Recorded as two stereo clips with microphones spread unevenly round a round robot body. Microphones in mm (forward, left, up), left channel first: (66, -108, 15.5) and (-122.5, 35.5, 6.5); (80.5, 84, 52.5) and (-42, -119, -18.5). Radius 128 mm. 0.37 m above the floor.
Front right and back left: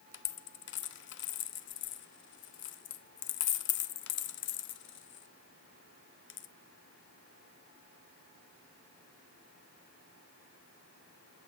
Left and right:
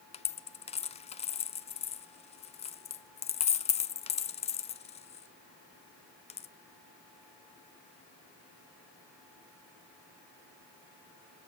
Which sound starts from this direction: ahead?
A dropped coin, at 0.1 s.